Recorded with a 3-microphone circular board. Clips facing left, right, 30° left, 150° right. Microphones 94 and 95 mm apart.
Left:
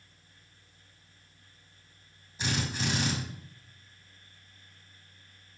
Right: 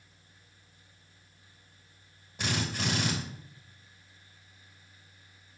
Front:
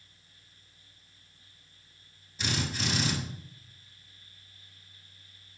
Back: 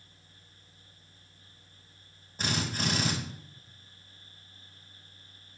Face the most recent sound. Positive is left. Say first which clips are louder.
# even, back 1 dB
turn(degrees=-110)